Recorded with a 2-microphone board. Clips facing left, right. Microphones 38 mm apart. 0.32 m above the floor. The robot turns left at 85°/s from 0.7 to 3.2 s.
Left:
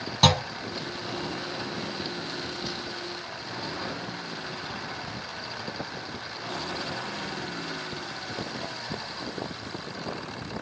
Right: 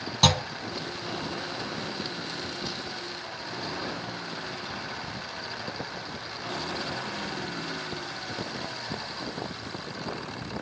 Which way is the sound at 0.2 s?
5° left (ahead or behind).